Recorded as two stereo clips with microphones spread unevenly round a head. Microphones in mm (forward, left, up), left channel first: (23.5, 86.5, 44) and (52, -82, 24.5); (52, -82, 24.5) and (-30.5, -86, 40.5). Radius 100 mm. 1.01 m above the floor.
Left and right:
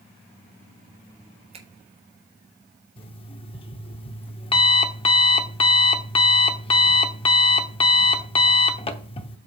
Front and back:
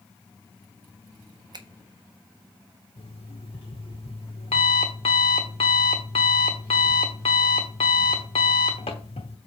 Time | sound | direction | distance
1.5 | a finger snap | 140° right | 1.1 m
3.0 | an alarm clock | 50° left | 0.9 m